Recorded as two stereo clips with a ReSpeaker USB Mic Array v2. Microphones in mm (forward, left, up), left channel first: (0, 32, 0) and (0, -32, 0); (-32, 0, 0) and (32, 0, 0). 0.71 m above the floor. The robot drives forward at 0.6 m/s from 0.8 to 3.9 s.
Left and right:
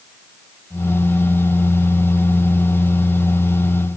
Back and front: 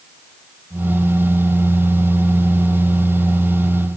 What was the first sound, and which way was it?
Only background noise.